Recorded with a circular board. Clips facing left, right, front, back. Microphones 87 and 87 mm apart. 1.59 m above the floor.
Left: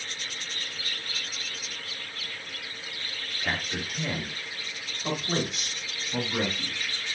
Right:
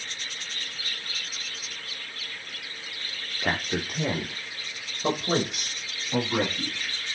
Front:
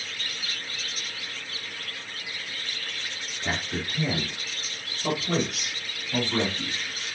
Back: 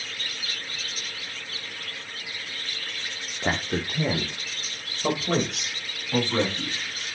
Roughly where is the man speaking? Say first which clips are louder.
Right 4 dB, back 4 dB; behind right.